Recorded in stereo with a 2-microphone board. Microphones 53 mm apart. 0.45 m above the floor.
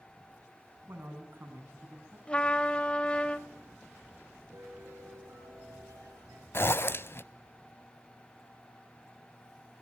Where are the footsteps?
I don't hear footsteps.